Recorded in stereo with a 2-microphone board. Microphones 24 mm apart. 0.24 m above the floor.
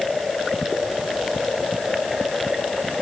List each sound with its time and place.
Only background noise.